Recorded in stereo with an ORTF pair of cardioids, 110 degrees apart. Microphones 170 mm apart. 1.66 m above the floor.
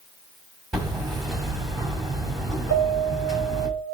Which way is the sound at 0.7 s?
Straight ahead.